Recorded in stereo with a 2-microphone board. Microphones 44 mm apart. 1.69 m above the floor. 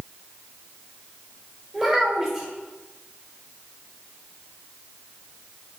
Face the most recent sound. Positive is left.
turn(degrees=0)  # may be behind; listen again after turning